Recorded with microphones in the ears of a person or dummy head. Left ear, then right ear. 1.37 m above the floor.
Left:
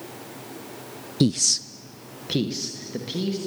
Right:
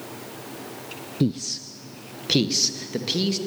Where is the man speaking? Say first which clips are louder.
Left 6 dB; 45° left (ahead or behind), 0.6 m; by 3.4 s 25° right (ahead or behind), 3 m.